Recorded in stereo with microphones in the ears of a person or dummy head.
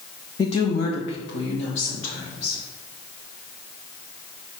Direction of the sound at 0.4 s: 20° left (ahead or behind).